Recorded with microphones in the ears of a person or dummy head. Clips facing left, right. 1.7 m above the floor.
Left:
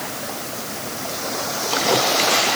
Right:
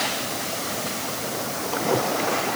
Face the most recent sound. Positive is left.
No sound to turn to.